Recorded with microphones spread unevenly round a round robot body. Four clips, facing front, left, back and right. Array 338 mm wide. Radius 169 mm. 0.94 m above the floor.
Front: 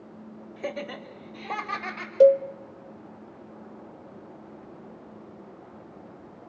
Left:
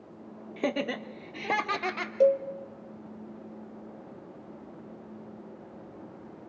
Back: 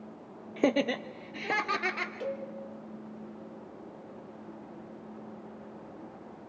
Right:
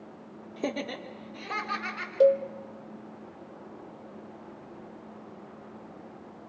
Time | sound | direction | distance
0.6 | laughter | 175° right | 0.6 m
2.2 | a cowbell | 20° right | 0.5 m